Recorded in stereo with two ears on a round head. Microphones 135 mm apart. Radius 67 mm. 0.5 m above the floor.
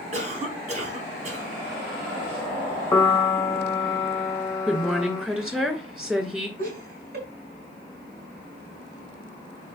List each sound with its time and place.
0.1 s a cough: 45° right (ahead or behind), 3.5 m
2.9 s a piano: 15° left (ahead or behind), 0.5 m
4.7 s a woman speaking: 5° right (ahead or behind), 2 m
6.6 s laughter: 60° right (ahead or behind), 5 m